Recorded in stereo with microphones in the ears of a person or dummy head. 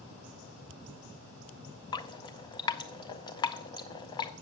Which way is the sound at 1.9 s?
20° left (ahead or behind).